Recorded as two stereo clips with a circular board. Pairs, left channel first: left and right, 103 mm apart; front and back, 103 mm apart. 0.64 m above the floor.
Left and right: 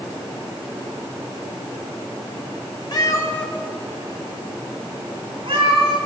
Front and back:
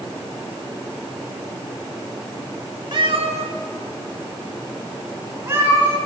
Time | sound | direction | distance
2.9 | a cat meowing | 135° left | 1.0 m